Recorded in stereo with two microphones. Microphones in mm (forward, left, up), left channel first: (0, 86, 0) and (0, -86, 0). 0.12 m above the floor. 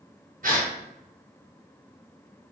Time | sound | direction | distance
0.4 | a gasp | 55° right (ahead or behind) | 1.3 m